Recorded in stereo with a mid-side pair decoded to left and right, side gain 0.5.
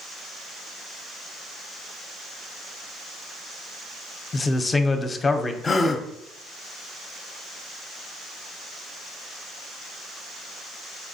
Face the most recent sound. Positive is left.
turn(degrees=35)